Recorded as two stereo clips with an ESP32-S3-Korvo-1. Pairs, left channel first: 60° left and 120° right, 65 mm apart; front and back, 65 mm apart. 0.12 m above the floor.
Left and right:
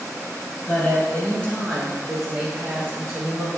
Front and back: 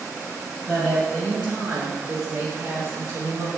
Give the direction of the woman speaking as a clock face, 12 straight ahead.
9 o'clock.